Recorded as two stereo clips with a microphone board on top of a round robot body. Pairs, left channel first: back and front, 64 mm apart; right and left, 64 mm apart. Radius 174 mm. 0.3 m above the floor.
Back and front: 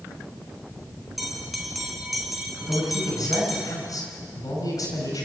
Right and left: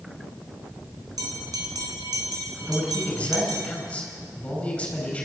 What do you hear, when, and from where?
1.2 s a bell: 90° left, 3.5 m
2.7 s a man speaking: 165° right, 6.5 m